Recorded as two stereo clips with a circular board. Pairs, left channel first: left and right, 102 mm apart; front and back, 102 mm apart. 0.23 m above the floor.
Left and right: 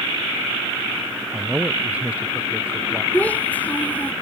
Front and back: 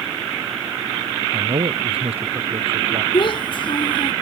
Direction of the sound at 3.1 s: 15° left.